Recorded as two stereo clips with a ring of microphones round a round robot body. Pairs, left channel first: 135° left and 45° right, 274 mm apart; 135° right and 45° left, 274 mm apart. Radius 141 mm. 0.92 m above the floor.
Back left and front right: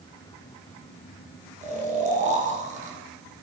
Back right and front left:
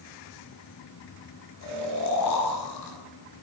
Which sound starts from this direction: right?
Snoring, at 1.6 s.